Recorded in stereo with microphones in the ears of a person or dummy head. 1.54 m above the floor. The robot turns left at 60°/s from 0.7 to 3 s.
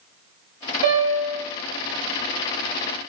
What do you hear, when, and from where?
0.8 s a piano: 115° right, 0.8 m; by 1.4 s 145° right, 0.8 m